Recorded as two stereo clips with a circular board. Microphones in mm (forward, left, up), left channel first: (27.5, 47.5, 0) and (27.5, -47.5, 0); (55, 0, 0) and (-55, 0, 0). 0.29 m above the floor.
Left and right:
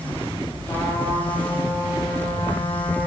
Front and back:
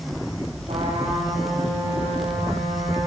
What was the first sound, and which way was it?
A trumpet, 155° left.